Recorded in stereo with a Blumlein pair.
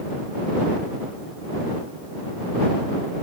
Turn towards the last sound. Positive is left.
No sound to turn to.